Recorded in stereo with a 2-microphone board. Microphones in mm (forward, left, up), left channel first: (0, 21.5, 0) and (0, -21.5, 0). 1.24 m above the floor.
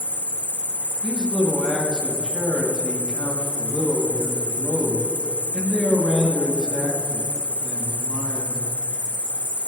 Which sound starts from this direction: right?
A man speaking, at 1.0 s.